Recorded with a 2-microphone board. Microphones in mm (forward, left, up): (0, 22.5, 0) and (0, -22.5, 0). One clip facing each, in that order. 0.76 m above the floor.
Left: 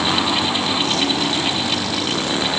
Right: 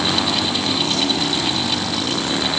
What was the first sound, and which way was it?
Only background noise.